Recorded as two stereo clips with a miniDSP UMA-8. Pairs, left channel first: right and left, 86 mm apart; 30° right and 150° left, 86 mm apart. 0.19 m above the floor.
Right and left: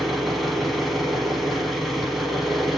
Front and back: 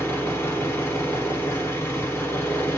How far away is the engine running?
About 0.8 m.